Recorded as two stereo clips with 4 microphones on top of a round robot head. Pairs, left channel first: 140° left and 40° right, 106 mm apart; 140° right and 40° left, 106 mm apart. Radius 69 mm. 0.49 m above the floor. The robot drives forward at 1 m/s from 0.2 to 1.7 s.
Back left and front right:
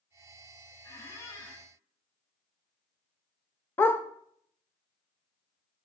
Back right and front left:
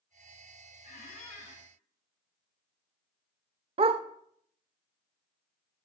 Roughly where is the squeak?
Behind right.